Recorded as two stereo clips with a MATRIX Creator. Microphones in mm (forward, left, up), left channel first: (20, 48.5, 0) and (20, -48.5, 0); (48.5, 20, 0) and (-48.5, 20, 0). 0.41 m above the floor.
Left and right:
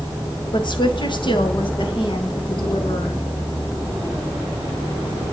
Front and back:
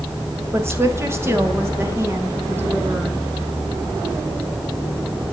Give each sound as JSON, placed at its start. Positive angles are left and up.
{"t": 0.5, "sound": "a woman speaking", "azimuth_deg": 120, "distance_m": 2.5}